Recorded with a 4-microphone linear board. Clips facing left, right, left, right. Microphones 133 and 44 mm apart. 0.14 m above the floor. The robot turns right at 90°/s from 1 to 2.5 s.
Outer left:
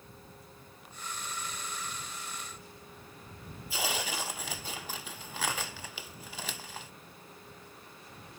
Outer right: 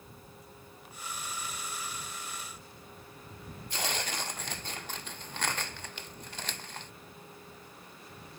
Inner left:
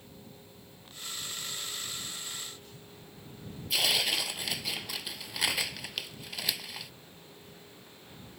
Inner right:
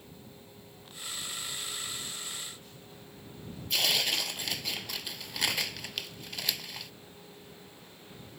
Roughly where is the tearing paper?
Centre.